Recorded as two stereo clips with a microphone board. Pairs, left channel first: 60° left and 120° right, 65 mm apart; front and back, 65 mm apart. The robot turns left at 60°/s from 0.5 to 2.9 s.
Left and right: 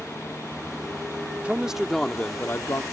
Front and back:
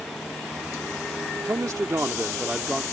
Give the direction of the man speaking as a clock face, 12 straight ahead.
6 o'clock.